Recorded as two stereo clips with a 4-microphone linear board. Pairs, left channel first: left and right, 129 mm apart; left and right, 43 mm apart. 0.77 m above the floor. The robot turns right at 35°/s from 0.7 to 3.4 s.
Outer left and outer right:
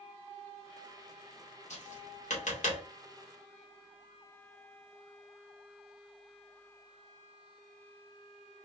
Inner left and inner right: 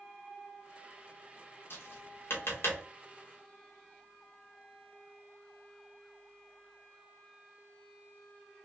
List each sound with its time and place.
1.7 s tapping: 65° left (ahead or behind), 2 m